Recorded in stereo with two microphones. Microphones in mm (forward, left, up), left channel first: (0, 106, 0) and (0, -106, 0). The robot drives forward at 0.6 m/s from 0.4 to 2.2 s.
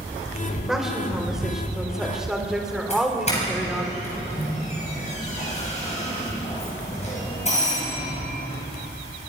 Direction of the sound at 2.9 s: 30° left (ahead or behind).